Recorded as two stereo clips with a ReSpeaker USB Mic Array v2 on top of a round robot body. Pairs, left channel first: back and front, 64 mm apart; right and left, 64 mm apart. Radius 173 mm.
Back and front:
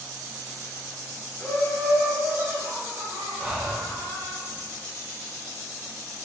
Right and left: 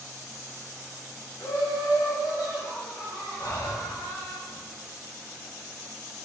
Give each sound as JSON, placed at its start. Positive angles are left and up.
{"t": 1.4, "sound": "laughter", "azimuth_deg": -115, "distance_m": 0.8}
{"t": 3.4, "sound": "breathing", "azimuth_deg": -75, "distance_m": 0.6}